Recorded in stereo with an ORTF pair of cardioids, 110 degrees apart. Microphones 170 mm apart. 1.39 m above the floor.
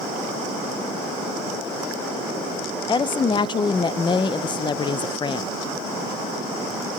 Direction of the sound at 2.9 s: 30° left.